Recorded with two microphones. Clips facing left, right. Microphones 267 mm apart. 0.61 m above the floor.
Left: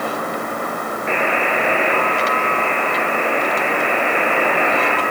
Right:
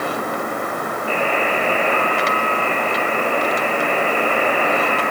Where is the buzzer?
85° left, 3 m.